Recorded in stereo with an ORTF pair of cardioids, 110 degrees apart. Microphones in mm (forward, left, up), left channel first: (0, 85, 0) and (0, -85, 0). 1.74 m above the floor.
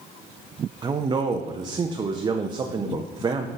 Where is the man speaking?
25° right, 0.6 m.